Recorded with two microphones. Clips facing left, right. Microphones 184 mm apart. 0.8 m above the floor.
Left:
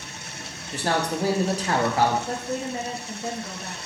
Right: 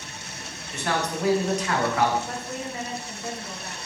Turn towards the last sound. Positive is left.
turn(degrees=30)  # may be behind; listen again after turning